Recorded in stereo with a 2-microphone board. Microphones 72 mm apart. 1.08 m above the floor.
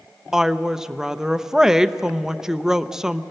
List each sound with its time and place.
0.3 s a woman speaking: 5° right (ahead or behind), 0.6 m